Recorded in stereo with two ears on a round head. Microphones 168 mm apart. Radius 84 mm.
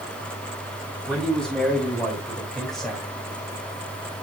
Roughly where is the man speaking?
Centre.